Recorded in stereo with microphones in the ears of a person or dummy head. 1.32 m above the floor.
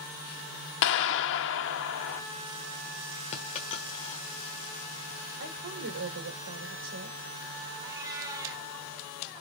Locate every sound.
0.8 s a clap: 65° left (ahead or behind), 1.8 m
3.3 s a dropped coin: 25° left (ahead or behind), 1.1 m
5.4 s a woman speaking: 65° right (ahead or behind), 4 m
7.8 s a cat meowing: 15° right (ahead or behind), 2.5 m